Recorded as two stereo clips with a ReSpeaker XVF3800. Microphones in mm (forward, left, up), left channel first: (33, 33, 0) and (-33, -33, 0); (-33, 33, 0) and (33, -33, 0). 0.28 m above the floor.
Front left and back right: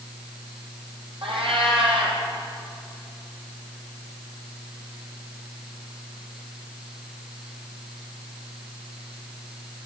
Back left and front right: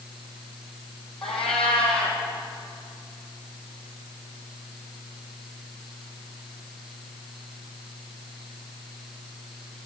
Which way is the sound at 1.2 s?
140° right.